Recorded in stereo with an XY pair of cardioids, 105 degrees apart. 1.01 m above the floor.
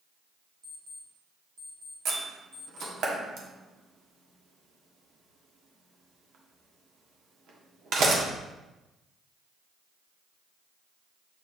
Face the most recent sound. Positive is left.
turn(degrees=-70)